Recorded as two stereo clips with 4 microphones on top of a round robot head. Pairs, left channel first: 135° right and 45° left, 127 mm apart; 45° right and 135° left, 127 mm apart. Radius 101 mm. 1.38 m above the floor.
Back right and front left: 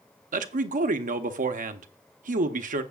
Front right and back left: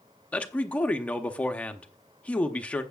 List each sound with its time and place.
0.3 s a man speaking: 35° left, 0.8 m